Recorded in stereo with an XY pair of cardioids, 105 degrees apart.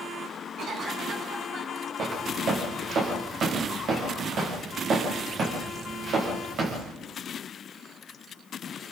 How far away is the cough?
About 9.5 m.